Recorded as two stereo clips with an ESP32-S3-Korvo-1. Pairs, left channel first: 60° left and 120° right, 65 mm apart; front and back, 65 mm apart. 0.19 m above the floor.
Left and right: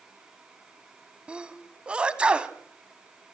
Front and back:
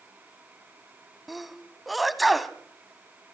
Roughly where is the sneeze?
Right.